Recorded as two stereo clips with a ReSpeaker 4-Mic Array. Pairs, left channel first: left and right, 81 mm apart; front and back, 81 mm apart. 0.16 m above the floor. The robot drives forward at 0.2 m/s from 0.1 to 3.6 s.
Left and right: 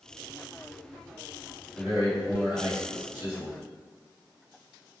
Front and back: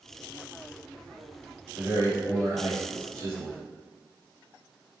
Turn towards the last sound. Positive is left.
turn(degrees=-155)